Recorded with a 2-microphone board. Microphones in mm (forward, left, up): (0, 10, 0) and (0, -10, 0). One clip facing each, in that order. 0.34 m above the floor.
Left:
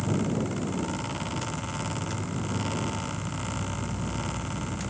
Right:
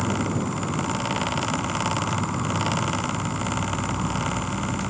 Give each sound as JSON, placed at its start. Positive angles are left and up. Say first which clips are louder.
{"t": 0.0, "sound": "an insect", "louder": "right 3 dB", "side_deg": -85}